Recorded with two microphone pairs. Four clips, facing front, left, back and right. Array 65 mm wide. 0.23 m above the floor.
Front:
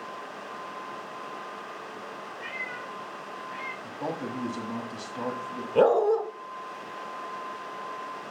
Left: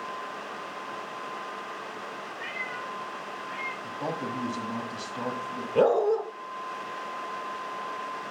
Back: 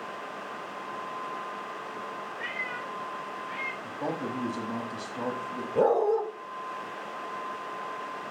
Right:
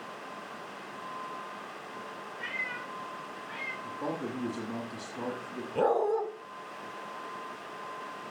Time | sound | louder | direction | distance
2.4 | a cat meowing | even, back 1 dB | 165° left | 6 m
3.8 | a man speaking | left 1 dB, even | 105° left | 1.1 m
5.8 | a dog barking | left 5 dB, front 3 dB | 20° left | 1.7 m